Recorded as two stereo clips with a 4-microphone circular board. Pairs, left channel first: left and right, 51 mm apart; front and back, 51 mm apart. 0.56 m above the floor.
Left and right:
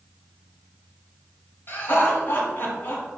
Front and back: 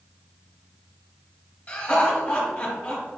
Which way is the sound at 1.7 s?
60° left.